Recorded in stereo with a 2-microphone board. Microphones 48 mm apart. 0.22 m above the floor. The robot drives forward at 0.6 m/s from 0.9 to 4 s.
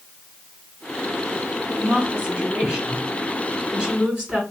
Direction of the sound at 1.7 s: 20° right (ahead or behind).